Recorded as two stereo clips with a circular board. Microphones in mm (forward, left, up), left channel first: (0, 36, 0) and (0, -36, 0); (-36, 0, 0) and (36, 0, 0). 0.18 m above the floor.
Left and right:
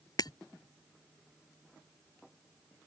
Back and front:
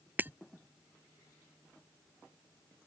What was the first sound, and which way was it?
Breaking glass, 65° left.